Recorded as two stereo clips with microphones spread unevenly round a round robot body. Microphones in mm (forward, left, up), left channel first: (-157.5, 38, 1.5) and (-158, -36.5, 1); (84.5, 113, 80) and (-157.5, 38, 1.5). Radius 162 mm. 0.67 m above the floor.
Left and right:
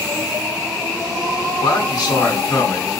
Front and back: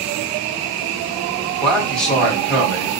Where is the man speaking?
110° left, 1.6 m.